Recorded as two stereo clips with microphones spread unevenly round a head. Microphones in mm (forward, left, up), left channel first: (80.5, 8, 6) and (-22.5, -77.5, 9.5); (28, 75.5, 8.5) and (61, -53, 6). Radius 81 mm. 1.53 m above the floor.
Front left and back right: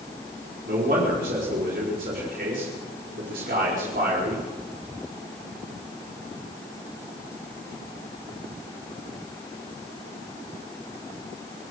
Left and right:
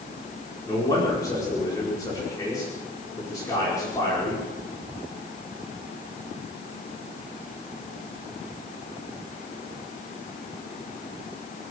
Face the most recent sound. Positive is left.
turn(degrees=175)